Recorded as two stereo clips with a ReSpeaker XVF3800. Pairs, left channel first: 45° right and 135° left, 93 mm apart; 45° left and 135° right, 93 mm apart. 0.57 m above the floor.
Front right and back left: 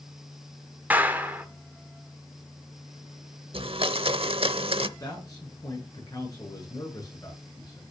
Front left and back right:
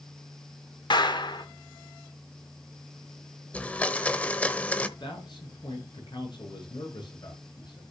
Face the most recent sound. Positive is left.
turn(degrees=5)